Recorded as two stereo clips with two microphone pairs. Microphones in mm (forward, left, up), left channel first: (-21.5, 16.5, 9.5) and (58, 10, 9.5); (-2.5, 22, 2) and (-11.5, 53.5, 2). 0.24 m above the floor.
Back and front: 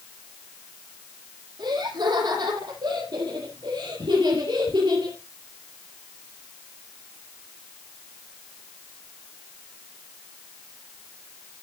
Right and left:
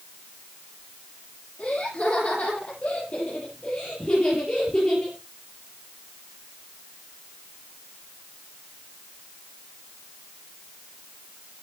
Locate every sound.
1.6 s laughter: 25° right, 8.5 m; by 5.2 s 10° right, 4.5 m